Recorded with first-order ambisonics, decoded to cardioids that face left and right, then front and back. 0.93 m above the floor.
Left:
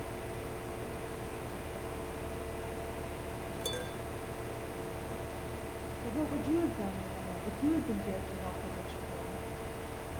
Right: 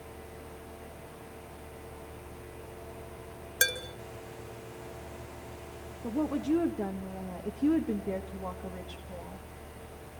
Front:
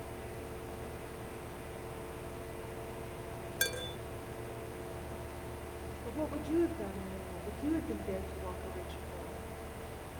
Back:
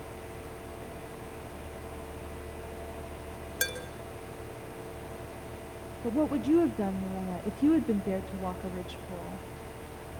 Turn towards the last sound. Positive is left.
turn(degrees=-165)